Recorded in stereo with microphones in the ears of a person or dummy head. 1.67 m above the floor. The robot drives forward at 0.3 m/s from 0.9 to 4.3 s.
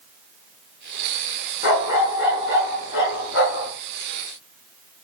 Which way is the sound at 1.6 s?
60° left (ahead or behind).